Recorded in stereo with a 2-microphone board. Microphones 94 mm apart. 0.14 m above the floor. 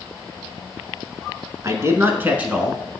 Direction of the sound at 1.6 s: 35° right (ahead or behind).